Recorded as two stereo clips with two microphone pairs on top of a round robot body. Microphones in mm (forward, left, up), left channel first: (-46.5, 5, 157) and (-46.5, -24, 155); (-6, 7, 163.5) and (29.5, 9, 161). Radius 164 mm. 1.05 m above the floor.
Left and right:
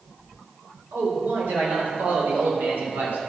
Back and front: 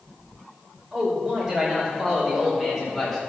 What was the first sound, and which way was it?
A man speaking, 75° right.